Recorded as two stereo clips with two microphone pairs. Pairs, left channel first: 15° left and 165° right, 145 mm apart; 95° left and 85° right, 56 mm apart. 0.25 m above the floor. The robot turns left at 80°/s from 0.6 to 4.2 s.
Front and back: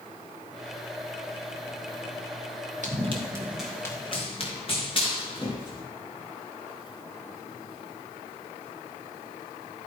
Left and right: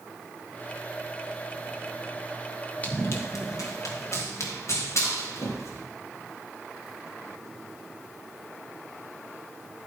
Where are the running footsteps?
160° left, 3.5 m; by 5.8 s 70° left, 5.5 m.